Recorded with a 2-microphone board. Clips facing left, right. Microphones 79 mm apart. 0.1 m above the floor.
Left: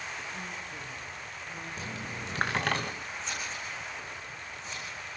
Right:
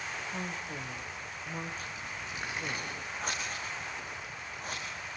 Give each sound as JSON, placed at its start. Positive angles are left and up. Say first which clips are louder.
{"t": 0.3, "sound": "a woman speaking", "louder": "right 2 dB", "side_deg": -50, "distance_m": 3.5}
{"t": 1.8, "sound": "a dropped coin", "louder": "left 2 dB", "side_deg": 75, "distance_m": 1.2}
{"t": 3.2, "sound": "scissors", "louder": "right 3 dB", "side_deg": -50, "distance_m": 8.0}